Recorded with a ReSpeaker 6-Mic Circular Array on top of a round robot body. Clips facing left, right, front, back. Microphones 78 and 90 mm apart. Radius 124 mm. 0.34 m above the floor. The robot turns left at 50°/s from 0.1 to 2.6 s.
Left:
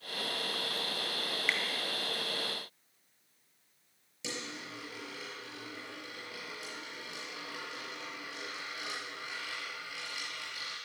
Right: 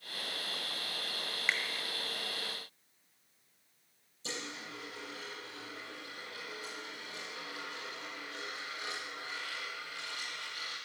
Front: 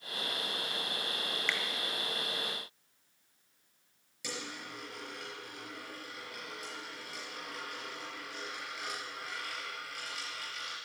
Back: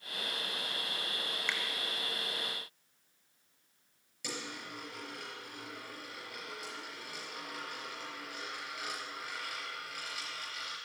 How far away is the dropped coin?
About 4.5 m.